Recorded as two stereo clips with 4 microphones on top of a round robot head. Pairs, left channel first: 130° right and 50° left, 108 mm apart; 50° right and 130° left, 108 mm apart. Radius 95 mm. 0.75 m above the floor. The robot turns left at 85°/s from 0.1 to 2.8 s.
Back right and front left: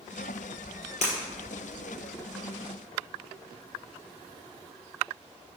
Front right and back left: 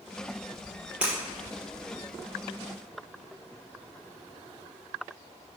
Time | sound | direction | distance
1.0 | breaking glass | 150° right | 2.5 m